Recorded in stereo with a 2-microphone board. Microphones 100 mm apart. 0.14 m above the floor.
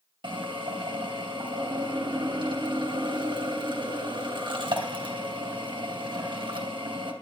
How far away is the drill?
About 2.5 m.